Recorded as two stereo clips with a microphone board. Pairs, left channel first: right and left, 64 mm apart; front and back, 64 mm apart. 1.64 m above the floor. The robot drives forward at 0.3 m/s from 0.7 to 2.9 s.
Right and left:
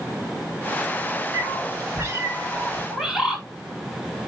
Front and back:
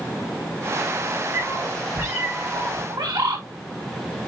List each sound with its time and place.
1.3 s a cat meowing: 135° left, 5.5 m; by 2.8 s 140° left, 5.5 m
2.9 s a bird: 175° left, 3.5 m